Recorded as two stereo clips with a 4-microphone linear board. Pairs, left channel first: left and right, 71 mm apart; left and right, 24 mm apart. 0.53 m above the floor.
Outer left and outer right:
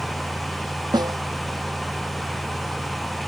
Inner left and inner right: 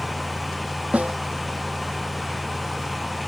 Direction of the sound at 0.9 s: 85° right.